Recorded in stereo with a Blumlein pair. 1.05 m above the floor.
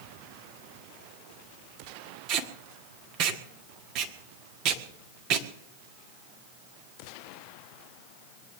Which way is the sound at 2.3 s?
40° right.